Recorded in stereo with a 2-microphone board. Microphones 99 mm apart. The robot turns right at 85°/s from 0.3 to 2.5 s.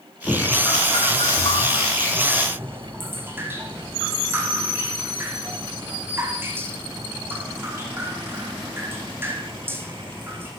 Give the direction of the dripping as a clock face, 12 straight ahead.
11 o'clock.